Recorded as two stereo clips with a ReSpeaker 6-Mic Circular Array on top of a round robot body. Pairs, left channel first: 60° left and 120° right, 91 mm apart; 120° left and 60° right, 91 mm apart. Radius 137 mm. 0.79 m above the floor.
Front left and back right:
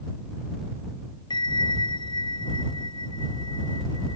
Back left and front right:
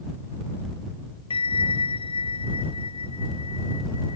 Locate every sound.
1.3 s a bell: 100° left